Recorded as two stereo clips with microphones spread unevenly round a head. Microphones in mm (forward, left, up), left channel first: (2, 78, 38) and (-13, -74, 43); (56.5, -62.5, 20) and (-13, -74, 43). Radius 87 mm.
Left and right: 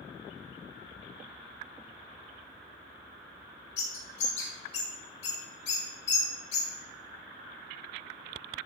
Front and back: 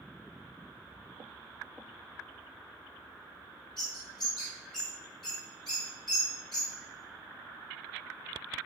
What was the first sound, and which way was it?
A bird, 70° left.